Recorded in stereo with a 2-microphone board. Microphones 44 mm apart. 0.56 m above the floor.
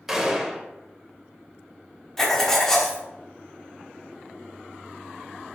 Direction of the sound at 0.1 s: 10° right (ahead or behind).